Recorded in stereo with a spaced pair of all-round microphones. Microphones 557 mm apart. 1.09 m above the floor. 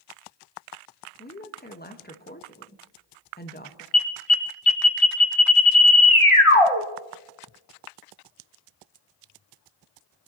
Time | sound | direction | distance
1.2 | a woman speaking | 15° left (ahead or behind) | 1.2 m
3.9 | an alarm | 60° left (ahead or behind) | 1.6 m